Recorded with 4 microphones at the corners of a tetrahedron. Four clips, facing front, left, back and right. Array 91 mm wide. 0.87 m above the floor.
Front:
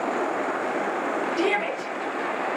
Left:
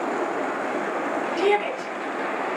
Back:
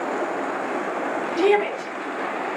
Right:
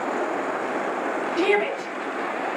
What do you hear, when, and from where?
1.4 s a shout: 90° right, 8 m